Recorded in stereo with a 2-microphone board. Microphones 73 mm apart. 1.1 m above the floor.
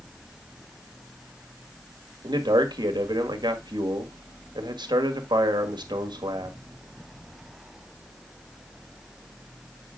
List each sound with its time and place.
2.2 s a man speaking: 80° right, 1.7 m